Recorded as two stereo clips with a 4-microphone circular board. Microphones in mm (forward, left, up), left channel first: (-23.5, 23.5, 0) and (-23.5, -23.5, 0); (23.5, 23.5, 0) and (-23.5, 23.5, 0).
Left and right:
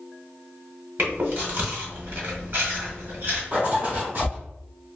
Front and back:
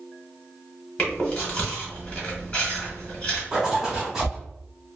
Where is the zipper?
105° right, 1.3 m.